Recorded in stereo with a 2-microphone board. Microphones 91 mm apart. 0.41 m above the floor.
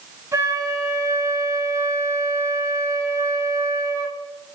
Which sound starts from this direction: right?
A flute, at 0.3 s.